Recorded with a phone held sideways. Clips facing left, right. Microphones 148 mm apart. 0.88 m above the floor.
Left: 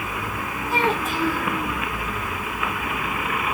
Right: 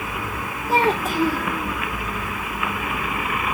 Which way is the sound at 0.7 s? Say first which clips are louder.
Right 3 dB; 35° right (ahead or behind).